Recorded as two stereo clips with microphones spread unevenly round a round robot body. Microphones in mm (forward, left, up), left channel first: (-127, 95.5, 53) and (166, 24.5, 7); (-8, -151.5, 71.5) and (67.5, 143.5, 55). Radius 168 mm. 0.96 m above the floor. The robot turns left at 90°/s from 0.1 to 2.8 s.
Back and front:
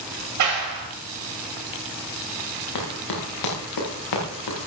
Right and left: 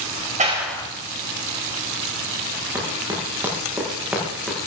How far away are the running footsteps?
About 7.5 m.